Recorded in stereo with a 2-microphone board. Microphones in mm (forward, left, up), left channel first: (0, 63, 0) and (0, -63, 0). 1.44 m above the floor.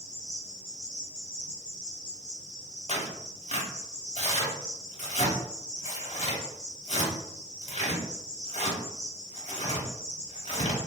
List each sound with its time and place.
0.0 s an insect: 85° right, 1.7 m
2.9 s tearing paper: 60° left (ahead or behind), 1.0 m